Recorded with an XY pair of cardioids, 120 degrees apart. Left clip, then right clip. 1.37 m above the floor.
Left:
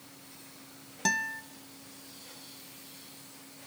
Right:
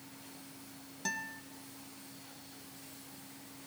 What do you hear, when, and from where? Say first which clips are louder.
1.1 s a guitar: left 9 dB; 45° left, 1.4 m